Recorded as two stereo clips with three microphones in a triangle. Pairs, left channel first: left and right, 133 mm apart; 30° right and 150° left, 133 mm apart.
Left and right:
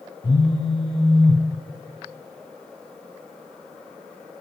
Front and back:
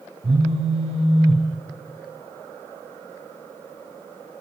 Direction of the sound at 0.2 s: 125° left.